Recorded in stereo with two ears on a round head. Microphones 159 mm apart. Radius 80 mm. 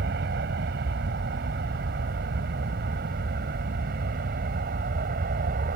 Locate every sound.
0.0 s an aircraft: 65° right (ahead or behind); by 5.8 s 55° right (ahead or behind)